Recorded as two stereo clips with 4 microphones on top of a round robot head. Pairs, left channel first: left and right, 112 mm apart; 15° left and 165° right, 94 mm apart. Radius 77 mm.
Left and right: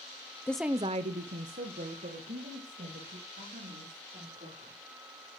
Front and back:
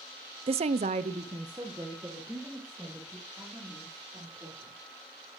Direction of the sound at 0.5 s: 165° left.